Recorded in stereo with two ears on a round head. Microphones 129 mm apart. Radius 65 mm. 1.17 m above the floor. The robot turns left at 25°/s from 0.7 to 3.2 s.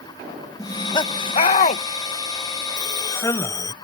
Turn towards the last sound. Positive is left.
turn(degrees=20)  # may be behind; listen again after turning